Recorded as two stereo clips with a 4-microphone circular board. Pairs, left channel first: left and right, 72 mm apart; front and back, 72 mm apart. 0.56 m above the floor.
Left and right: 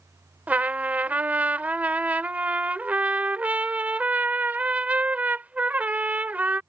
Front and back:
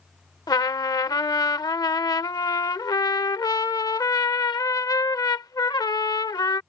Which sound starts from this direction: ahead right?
A trumpet, at 0.5 s.